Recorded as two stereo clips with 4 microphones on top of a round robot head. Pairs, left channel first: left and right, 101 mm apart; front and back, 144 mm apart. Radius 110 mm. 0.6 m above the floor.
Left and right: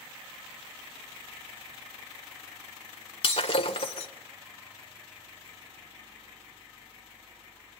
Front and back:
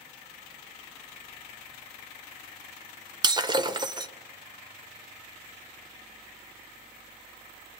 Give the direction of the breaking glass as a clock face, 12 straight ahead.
8 o'clock.